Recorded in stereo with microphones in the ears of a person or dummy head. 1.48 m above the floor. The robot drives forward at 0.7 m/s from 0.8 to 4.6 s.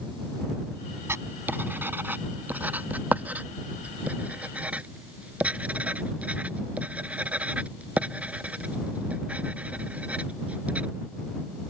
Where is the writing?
10° right (ahead or behind); by 10.8 s 5° right (ahead or behind).